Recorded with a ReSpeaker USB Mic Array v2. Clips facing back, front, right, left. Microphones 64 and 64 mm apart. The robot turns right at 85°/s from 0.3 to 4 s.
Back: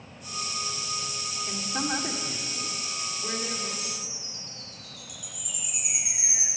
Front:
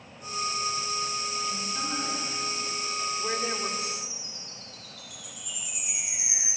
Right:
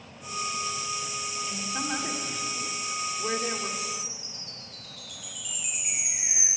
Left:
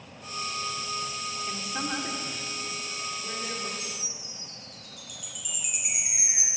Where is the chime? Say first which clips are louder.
Front 3 dB, right 4 dB; 155° left, 5.5 m; by 6.5 s 170° left, 5.5 m.